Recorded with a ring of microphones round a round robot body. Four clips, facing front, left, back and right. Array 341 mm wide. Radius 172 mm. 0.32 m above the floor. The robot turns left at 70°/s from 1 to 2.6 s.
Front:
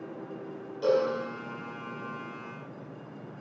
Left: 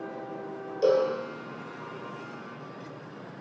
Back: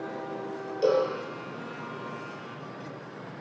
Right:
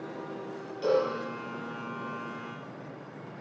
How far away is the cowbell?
About 3 m.